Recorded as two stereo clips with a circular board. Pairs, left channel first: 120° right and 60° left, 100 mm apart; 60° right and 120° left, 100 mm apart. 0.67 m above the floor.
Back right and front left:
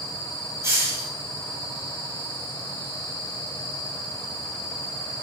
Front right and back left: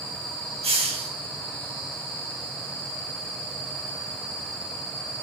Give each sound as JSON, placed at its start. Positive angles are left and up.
{"t": 0.6, "sound": "a hiss", "azimuth_deg": 120, "distance_m": 1.2}